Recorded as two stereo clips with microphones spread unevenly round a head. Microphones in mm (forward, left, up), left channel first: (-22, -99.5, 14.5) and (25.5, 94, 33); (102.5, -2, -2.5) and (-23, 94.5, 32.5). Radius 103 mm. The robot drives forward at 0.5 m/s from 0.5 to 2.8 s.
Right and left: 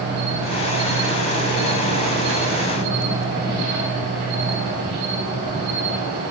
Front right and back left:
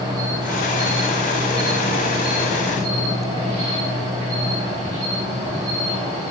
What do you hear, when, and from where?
0.0 s an insect: 75° left, 4.5 m; by 6.3 s 90° left, 4.5 m